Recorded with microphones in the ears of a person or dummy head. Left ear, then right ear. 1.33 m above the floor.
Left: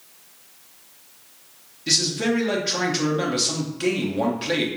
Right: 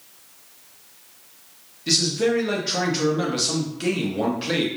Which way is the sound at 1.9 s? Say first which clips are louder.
Right 1 dB; 5° left (ahead or behind).